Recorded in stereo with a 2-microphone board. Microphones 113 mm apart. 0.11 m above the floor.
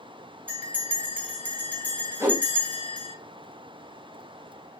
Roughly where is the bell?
Centre.